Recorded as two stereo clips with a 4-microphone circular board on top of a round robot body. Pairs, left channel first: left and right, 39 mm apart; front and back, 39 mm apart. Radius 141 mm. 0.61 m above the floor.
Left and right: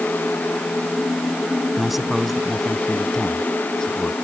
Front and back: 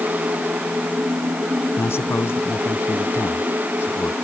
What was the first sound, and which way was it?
A man speaking, 5° right.